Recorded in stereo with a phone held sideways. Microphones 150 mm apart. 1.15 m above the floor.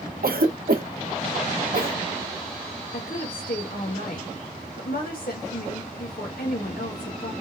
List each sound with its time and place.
0.2 s a cough: 85° right, 0.7 m
2.9 s a woman speaking: 80° left, 1.4 m